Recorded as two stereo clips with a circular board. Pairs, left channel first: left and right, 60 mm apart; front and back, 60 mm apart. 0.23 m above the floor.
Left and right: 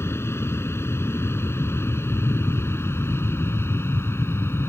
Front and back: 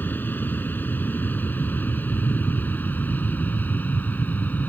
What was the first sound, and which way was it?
An aircraft, 55° left.